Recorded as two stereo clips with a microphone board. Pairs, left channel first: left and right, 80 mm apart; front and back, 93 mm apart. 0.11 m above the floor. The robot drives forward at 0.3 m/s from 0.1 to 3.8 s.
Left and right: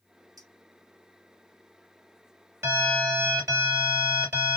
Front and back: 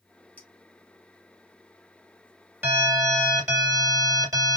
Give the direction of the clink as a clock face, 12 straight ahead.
2 o'clock.